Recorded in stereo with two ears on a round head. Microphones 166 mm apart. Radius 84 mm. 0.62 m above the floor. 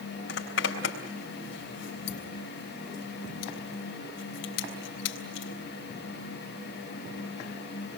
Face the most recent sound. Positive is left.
turn(degrees=75)  # may be behind; listen again after turning